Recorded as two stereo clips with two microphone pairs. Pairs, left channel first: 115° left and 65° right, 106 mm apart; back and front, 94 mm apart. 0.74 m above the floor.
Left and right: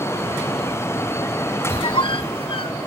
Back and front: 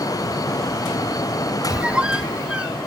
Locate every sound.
1.7 s a squeak: 80° left, 0.6 m